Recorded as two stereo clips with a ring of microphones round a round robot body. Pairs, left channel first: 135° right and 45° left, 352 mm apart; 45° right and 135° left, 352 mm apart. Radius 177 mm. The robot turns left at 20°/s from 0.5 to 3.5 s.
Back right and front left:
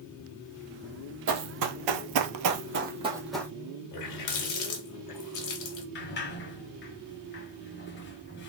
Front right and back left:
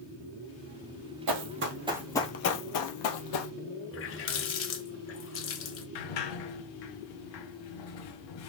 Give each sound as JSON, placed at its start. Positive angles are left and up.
{"t": 1.3, "sound": "running footsteps", "azimuth_deg": 95, "distance_m": 0.9}
{"t": 3.9, "sound": "a running tap", "azimuth_deg": -100, "distance_m": 1.4}
{"t": 6.0, "sound": "a sliding door", "azimuth_deg": -75, "distance_m": 1.0}